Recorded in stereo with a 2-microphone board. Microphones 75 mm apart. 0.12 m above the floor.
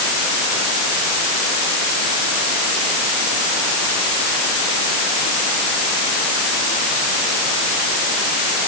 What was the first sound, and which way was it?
Only background noise.